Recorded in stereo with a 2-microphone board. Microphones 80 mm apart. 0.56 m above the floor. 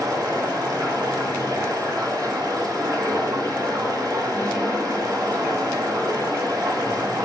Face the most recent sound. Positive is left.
turn(degrees=-50)  # may be behind; listen again after turning